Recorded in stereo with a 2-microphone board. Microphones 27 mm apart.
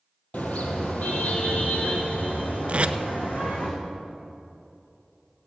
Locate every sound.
0.3 s a car horn: 70° left (ahead or behind), 2 m; by 3.7 s 85° left, 5 m
2.7 s tape being pulled: 50° right (ahead or behind), 0.7 m